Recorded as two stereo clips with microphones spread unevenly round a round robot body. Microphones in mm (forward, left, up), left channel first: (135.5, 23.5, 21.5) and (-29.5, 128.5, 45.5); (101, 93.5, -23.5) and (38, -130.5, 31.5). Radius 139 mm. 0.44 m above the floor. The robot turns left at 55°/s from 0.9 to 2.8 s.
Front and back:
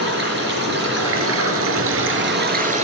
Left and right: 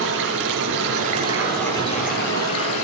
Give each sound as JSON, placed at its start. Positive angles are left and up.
{"t": 0.0, "sound": "running water", "azimuth_deg": -160, "distance_m": 5.5}